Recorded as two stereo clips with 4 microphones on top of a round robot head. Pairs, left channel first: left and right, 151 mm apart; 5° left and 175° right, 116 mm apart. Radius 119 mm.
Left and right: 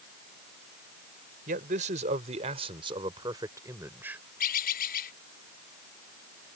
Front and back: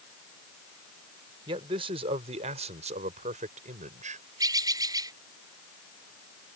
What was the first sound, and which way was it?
A man speaking, 125° right.